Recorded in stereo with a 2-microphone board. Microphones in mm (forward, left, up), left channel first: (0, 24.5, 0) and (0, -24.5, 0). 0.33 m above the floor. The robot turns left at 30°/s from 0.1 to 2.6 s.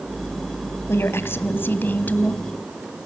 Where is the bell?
No bell in this recording.